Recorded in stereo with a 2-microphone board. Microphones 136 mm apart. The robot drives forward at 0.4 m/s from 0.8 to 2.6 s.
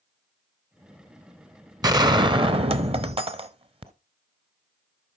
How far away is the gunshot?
About 0.8 m.